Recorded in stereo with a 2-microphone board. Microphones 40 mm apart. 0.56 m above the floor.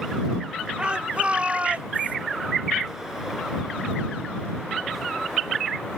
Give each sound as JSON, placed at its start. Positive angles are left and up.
{"t": 0.8, "sound": "a shout", "side_deg": -25}